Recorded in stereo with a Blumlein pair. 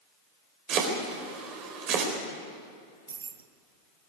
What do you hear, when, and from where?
0.7 s chopping: 35° right, 4.5 m
3.1 s keys jangling: 70° right, 1.0 m